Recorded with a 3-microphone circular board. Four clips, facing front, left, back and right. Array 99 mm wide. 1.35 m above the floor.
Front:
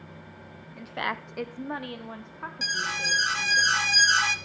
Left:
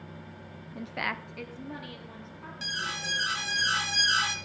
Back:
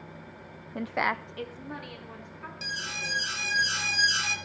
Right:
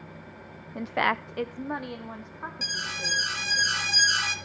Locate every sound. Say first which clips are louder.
0.8 s a woman speaking: right 9 dB, back 3 dB; 145° right, 0.5 m; by 3.6 s 40° right, 3 m
2.6 s an alarm: left 2 dB, front 7 dB; 5° left, 1.0 m